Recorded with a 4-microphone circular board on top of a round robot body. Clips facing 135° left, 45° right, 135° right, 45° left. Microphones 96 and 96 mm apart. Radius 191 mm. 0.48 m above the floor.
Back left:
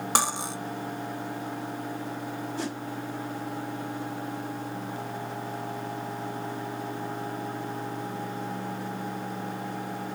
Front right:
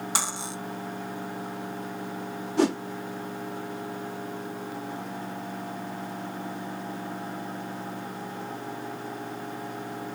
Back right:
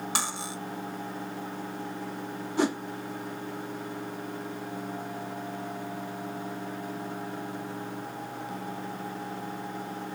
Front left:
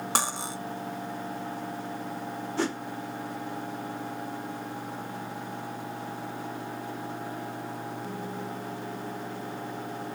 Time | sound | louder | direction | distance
0.1 | cutlery clinking | back left 8 dB, front left 6 dB | 95° left | 1.2 m
2.6 | a whoosh | front right 14 dB, back right 4 dB | 60° right | 0.7 m